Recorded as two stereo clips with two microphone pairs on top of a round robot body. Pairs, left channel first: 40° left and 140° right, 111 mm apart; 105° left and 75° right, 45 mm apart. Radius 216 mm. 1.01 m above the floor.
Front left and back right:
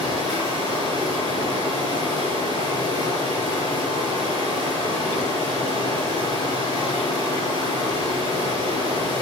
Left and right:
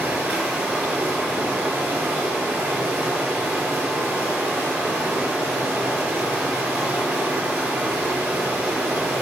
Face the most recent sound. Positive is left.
turn(degrees=-10)